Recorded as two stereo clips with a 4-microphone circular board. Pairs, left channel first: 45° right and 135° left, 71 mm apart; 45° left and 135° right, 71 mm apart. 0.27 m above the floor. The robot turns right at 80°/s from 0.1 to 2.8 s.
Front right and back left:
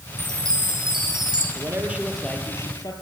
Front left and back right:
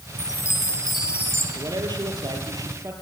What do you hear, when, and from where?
0.2 s a chime: 75° left, 5.5 m; by 1.4 s 175° left, 5.5 m
1.6 s a man speaking: straight behind, 5.5 m; by 2.9 s 80° right, 5.5 m